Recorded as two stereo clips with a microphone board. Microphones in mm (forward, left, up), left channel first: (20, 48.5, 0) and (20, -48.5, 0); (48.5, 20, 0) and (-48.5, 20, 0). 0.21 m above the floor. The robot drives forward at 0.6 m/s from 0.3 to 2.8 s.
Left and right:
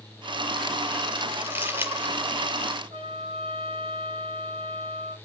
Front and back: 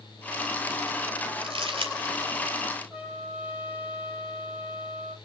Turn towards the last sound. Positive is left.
turn(degrees=-105)